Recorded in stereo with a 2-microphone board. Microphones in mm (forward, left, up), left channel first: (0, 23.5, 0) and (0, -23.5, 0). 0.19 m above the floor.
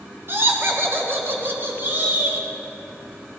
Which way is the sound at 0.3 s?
50° right (ahead or behind).